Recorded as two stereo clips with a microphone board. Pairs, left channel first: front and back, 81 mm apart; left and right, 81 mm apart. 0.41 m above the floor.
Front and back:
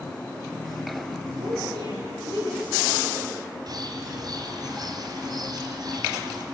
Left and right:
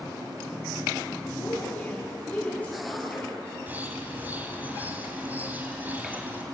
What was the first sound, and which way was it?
A woman speaking, 155° left.